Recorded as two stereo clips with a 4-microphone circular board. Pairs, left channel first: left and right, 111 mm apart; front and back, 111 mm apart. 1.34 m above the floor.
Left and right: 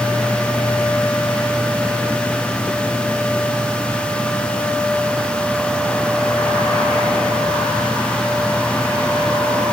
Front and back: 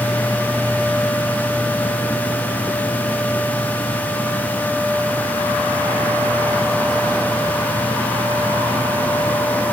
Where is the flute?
I don't hear a flute.